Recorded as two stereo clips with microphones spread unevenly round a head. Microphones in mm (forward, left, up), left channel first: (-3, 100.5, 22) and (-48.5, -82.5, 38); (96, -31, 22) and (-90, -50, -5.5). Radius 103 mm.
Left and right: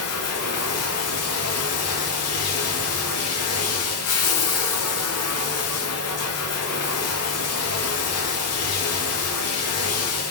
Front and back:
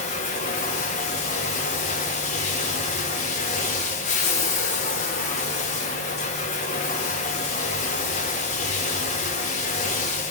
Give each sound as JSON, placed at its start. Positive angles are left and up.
{"t": 0.0, "sound": "running water", "azimuth_deg": 60, "distance_m": 2.0}